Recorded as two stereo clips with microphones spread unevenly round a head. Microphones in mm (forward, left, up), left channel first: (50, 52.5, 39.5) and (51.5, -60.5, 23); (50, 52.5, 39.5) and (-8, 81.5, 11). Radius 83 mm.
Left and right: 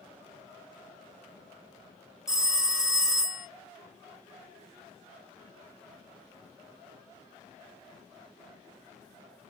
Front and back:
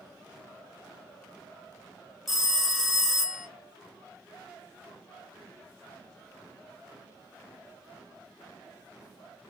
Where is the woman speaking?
No woman speaking in this recording.